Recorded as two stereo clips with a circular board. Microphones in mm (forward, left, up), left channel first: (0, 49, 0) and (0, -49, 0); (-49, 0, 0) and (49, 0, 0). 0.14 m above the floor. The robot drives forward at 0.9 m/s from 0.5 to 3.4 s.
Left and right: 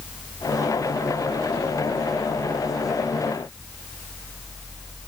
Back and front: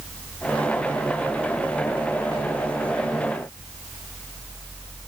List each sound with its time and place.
Only background noise.